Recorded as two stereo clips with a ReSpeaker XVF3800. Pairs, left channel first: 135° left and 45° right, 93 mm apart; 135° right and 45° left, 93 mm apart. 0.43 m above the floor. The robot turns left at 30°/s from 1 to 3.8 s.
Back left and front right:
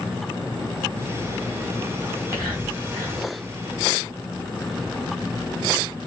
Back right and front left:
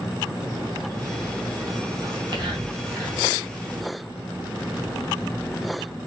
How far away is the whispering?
About 3.5 m.